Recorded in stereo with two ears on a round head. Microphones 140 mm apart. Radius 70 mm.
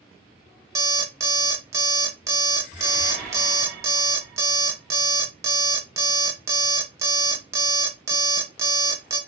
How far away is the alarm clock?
About 0.5 m.